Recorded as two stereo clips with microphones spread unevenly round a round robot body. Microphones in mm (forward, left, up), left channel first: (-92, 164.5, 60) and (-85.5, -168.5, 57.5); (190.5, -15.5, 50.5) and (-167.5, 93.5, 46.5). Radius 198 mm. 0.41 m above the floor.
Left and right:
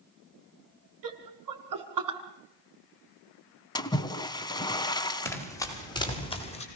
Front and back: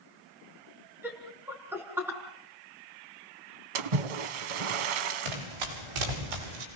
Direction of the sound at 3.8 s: 170° left.